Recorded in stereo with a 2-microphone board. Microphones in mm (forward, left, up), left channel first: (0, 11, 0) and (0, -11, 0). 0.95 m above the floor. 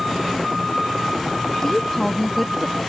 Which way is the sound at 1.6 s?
30° left (ahead or behind).